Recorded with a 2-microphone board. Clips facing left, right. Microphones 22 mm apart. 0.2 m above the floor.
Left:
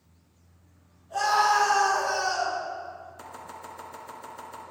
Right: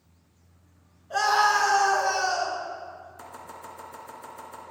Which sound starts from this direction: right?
A scream, at 1.1 s.